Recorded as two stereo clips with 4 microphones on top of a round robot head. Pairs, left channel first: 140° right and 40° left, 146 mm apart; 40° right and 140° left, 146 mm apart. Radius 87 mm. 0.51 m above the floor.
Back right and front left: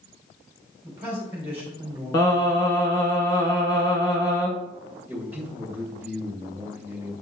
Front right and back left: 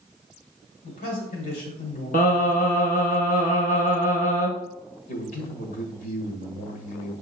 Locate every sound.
0.8 s a man speaking: 35° right, 2 m
2.1 s singing: 75° right, 1.2 m
5.1 s a man speaking: 35° right, 1.8 m